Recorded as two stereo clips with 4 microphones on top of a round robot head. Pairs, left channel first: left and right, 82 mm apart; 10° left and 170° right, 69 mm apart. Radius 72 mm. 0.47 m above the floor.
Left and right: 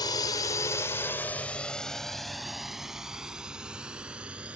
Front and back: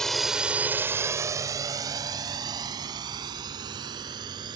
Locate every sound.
0.0 s a drone: 90° left; by 4.6 s 170° right